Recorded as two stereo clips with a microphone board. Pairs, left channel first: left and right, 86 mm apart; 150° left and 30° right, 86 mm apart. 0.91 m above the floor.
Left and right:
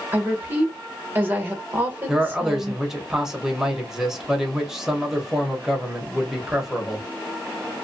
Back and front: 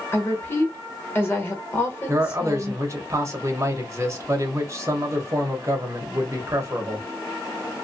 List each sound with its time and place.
0.1 s a woman speaking: 150° right, 1.1 m
2.1 s a man speaking: 10° right, 0.9 m